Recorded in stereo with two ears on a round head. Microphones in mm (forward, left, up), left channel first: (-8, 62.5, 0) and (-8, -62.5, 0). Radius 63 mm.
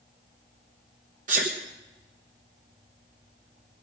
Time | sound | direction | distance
1.3 | a sneeze | 55° right (ahead or behind) | 1.2 m